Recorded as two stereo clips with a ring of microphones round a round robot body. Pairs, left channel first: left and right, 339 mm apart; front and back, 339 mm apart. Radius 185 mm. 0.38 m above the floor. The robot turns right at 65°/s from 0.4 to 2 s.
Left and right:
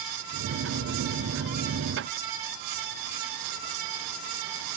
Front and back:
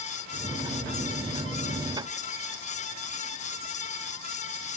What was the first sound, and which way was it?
Only background noise.